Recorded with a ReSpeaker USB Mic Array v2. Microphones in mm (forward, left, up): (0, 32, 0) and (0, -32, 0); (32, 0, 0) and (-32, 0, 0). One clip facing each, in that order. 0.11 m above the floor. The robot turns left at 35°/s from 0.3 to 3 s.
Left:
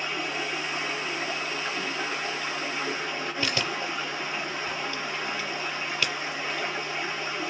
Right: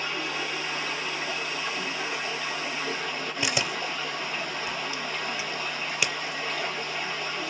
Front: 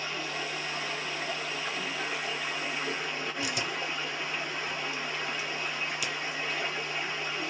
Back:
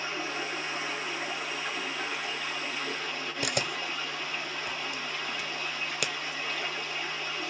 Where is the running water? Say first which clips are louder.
Even, back 1 dB; 150° left, 1.6 m; by 7.5 s 55° left, 1.6 m.